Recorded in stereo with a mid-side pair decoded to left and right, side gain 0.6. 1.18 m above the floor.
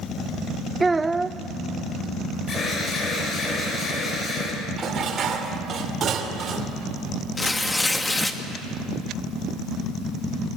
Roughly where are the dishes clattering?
Ahead right.